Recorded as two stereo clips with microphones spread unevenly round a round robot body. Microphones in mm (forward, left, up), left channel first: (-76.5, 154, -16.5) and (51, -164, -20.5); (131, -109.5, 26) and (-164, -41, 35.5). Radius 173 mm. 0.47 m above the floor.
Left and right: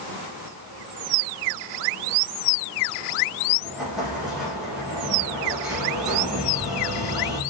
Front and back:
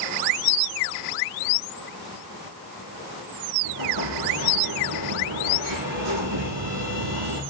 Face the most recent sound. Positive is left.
turn(degrees=-155)